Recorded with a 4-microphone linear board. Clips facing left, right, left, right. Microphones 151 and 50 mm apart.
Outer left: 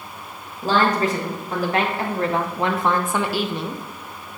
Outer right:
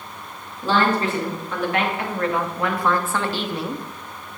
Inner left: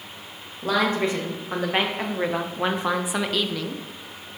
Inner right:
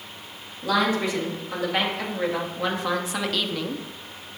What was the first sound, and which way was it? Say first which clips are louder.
A woman speaking: outer left 1 dB, even; 40° left (ahead or behind).